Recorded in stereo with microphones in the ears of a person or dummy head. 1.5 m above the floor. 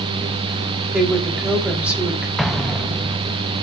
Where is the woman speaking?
10° right (ahead or behind), 4 m.